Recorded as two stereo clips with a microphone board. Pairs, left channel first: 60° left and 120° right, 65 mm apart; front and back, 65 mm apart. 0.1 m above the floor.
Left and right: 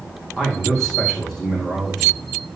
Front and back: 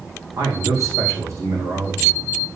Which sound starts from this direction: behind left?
A man speaking, at 0.4 s.